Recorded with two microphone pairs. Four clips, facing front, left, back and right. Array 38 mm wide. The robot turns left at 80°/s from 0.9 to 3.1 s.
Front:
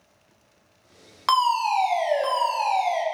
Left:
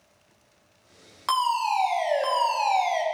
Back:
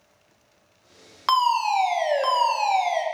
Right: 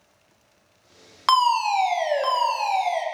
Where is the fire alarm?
85° right, 1.3 m; by 3.0 s 135° left, 1.3 m.